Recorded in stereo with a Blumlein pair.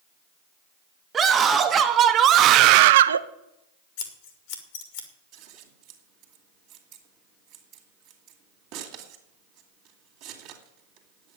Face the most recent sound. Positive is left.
turn(degrees=-40)